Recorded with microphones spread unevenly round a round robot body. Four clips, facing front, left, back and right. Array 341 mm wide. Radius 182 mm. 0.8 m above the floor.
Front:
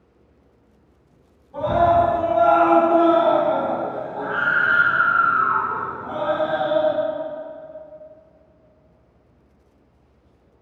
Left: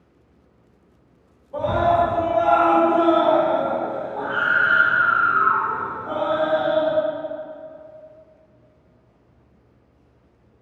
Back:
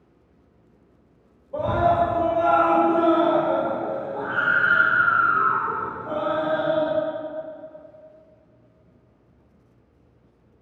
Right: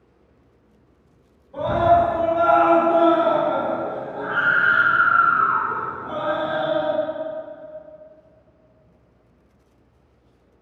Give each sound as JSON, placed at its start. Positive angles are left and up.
{"t": 1.5, "sound": "a scream", "azimuth_deg": 155, "distance_m": 1.2}